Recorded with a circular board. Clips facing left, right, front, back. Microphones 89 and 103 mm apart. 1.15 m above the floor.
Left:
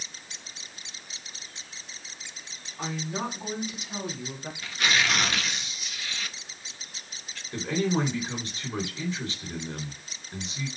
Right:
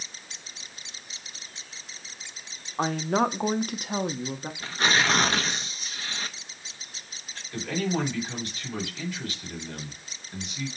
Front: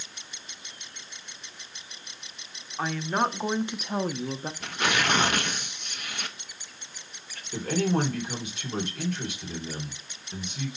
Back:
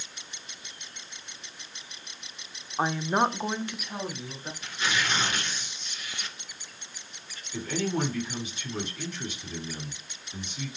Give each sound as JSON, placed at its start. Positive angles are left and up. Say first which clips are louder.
{"t": 2.8, "sound": "a woman speaking", "louder": "right 8 dB, back 2 dB", "azimuth_deg": -120, "distance_m": 1.1}
{"t": 4.6, "sound": "tearing paper", "louder": "right 2 dB, front 3 dB", "azimuth_deg": -30, "distance_m": 0.8}
{"t": 7.5, "sound": "a man speaking", "louder": "left 2 dB, front 4 dB", "azimuth_deg": 25, "distance_m": 3.5}